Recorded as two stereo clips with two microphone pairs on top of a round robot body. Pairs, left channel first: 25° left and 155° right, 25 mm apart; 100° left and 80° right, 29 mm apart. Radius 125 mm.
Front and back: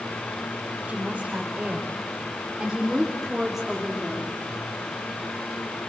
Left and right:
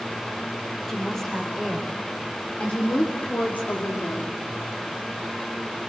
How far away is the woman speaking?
About 4.5 m.